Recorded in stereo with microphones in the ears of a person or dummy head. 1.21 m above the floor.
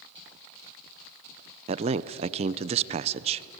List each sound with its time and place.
1.7 s a man speaking: 30° right (ahead or behind), 0.7 m